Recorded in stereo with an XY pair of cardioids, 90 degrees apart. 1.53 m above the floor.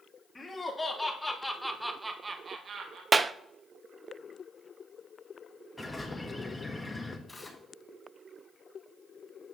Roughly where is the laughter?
Ahead left.